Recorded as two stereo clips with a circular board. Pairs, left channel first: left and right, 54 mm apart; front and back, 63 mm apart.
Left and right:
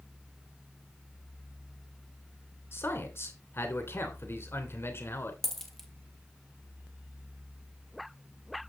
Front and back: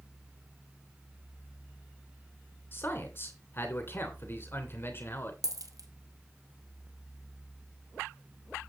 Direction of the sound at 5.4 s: 175° left.